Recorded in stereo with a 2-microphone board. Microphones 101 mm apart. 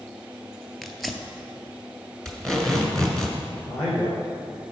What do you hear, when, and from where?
0.8 s tearing paper: centre (ahead or behind), 0.7 m
2.2 s tape being pulled: 5° left (ahead or behind), 1.6 m
3.7 s a man speaking: 25° left (ahead or behind), 2.5 m